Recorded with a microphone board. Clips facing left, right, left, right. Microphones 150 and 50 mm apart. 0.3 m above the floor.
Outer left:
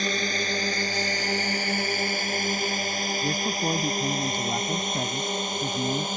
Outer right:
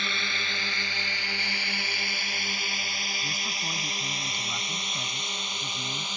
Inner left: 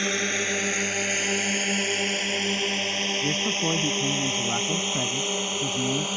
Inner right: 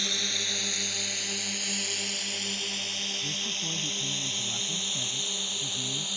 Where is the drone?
40° left (ahead or behind); by 6.2 s 50° left (ahead or behind).